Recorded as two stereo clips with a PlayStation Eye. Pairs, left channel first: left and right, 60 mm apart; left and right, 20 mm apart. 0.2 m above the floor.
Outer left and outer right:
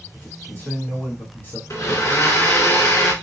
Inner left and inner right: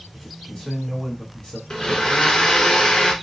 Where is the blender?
55° left (ahead or behind), 1.0 m.